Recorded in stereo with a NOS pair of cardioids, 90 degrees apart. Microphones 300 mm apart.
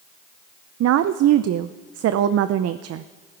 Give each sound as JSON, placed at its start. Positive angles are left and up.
{"t": 0.8, "sound": "a woman speaking", "azimuth_deg": -60, "distance_m": 0.6}